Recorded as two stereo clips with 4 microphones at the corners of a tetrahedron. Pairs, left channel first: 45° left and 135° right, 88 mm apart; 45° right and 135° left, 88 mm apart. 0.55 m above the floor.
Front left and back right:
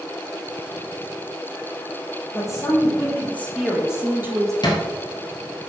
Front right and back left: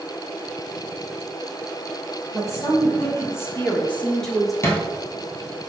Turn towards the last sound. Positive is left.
turn(degrees=15)